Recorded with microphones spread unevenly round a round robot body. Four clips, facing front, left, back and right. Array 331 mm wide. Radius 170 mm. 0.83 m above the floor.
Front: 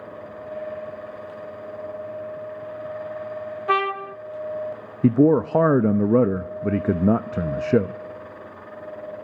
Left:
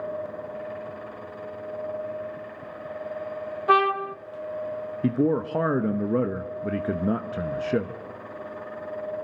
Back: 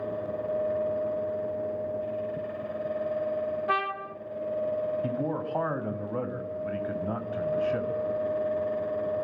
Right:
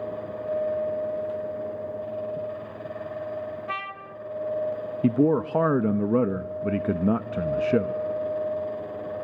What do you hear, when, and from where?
3.7 s a trumpet: 55° left, 0.6 m
5.0 s a man speaking: 15° right, 0.9 m